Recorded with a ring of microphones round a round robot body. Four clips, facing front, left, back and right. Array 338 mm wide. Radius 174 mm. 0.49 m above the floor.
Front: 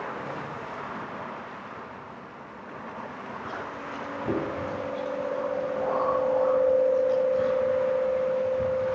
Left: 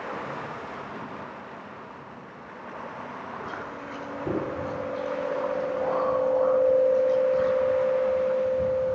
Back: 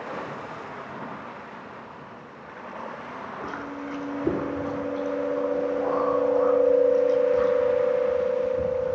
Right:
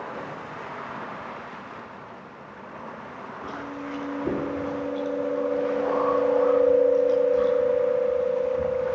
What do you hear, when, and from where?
3.4 s chewing: 160° right, 6 m